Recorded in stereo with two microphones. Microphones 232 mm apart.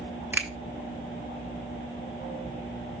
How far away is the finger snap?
About 1.2 m.